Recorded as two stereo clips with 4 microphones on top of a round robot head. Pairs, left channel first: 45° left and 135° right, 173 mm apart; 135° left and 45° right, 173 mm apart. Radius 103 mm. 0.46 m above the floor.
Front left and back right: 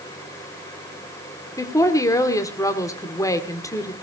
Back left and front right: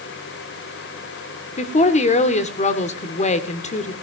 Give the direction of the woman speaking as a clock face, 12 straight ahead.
8 o'clock.